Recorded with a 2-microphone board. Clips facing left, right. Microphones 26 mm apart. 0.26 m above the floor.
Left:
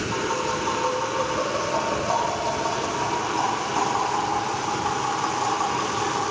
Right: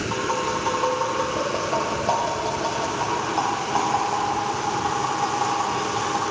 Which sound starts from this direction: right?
Tapping, at 0.1 s.